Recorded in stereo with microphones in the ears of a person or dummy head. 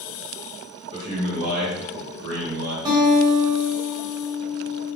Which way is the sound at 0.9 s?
25° right (ahead or behind).